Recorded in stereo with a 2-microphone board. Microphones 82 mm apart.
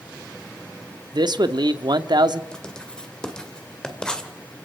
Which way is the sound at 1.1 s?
60° right (ahead or behind).